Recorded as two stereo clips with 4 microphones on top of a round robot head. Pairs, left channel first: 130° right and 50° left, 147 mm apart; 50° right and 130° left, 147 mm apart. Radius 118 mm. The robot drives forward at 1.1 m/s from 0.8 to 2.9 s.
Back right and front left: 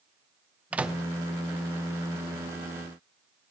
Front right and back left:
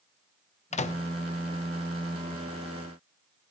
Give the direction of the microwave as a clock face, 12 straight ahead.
1 o'clock.